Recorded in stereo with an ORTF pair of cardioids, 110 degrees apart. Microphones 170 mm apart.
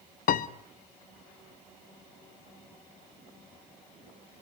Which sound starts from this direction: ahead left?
A piano, at 0.3 s.